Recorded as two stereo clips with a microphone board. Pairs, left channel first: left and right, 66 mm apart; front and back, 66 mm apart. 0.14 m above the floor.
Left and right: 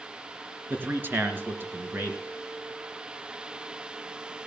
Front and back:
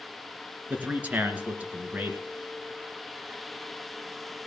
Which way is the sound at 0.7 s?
125° right.